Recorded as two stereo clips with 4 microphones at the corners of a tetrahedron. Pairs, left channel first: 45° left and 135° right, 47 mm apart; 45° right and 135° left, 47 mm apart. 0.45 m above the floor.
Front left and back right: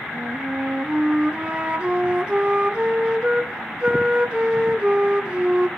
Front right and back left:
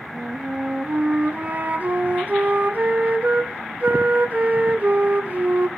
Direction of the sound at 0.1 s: 170° left.